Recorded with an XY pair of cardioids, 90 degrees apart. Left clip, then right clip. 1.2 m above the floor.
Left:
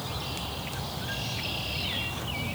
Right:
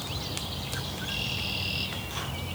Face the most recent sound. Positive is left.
No sound to turn to.